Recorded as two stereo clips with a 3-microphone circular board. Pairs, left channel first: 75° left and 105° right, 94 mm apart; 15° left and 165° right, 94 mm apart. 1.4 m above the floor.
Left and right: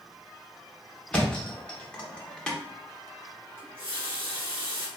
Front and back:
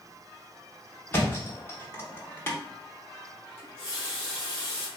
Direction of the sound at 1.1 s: 15° left.